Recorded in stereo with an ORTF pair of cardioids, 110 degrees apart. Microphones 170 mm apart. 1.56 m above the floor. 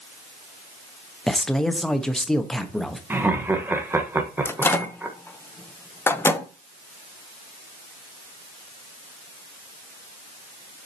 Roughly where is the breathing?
No breathing in this recording.